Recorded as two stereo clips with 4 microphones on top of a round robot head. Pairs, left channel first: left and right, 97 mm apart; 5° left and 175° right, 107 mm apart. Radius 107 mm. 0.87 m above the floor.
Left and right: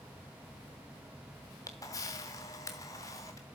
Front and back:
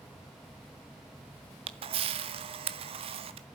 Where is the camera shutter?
160° left, 0.8 m.